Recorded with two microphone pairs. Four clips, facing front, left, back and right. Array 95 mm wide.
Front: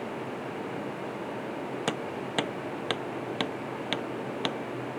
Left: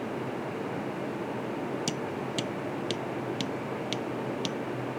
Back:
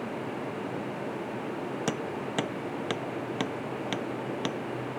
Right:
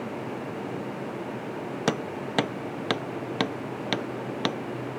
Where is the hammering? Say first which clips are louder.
Right 4 dB, even; 70° right.